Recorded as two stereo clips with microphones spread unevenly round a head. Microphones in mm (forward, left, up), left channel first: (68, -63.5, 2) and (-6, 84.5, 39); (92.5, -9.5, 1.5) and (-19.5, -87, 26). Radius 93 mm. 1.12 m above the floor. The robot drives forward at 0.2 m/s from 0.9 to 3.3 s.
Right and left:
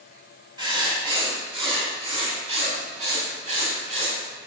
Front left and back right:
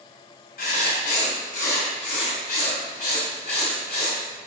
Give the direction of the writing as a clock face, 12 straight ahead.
10 o'clock.